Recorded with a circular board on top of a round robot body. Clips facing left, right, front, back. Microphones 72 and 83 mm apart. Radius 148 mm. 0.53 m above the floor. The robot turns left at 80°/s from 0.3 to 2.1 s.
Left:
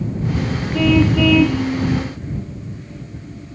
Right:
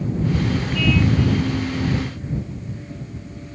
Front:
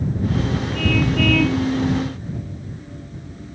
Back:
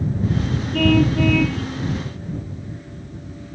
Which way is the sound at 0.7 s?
145° left.